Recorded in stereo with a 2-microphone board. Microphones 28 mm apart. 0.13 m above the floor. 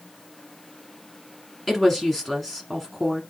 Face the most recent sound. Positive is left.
turn(degrees=-5)  # may be behind; listen again after turning